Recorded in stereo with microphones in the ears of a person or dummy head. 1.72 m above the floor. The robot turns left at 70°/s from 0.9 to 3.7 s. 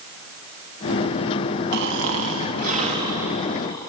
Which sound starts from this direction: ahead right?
Snoring, at 1.7 s.